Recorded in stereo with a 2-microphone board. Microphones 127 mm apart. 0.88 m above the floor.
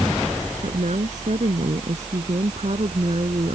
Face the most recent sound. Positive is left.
turn(degrees=-50)  # may be behind; listen again after turning